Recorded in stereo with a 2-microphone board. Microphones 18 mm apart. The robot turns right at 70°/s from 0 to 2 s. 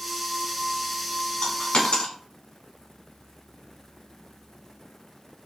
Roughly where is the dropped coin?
Left.